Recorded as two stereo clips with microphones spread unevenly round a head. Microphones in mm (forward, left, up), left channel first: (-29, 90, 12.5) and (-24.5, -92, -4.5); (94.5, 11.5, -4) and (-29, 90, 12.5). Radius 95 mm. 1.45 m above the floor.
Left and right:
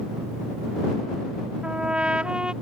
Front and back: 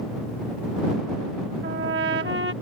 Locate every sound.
1.6 s a trumpet: 175° right